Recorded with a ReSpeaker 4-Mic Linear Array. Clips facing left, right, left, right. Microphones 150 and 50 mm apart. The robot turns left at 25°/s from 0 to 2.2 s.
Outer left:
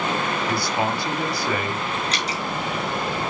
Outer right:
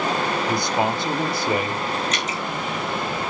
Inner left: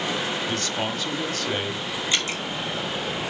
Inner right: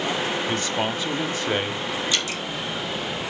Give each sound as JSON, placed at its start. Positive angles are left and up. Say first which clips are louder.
{"t": 0.5, "sound": "a man speaking", "louder": "outer right 2 dB, inner right 2 dB", "side_deg": -20, "distance_m": 1.1}
{"t": 2.1, "sound": "dripping", "louder": "even, even", "side_deg": 35, "distance_m": 2.5}